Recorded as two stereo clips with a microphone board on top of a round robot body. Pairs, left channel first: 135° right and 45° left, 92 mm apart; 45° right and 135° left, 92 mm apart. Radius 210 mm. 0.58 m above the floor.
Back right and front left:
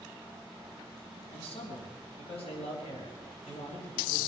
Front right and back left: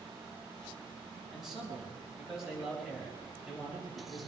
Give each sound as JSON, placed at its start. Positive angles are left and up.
{"t": 1.3, "sound": "a man speaking", "azimuth_deg": -140, "distance_m": 5.0}